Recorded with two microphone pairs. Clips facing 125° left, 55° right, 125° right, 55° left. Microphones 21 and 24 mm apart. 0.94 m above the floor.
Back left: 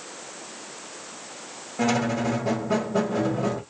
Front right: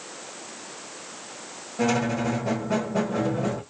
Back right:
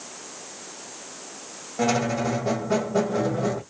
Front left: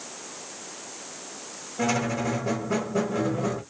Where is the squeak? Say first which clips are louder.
Even, back right 3 dB; 165° right, 2 m.